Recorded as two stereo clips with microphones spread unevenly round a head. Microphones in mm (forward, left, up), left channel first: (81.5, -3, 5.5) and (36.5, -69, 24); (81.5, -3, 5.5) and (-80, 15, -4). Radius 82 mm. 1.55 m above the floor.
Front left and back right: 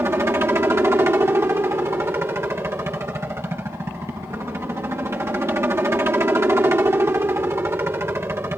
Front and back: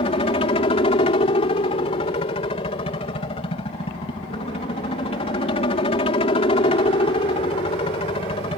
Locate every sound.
0.0 s a helicopter: 65° right